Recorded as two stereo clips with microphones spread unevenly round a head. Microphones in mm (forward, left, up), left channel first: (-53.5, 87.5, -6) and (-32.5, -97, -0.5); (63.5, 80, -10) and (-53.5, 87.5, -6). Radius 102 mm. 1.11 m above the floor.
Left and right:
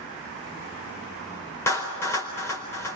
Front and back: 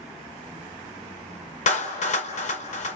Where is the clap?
15° left, 4.5 m.